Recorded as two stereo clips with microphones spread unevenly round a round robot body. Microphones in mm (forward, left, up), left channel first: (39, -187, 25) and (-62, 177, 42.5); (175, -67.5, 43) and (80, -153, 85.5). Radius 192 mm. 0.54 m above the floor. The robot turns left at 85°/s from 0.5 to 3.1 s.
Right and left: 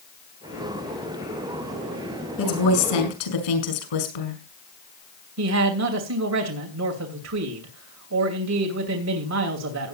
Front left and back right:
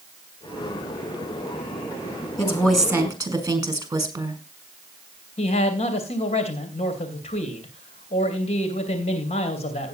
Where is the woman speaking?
15° right, 6 m; by 4.4 s 80° right, 6 m.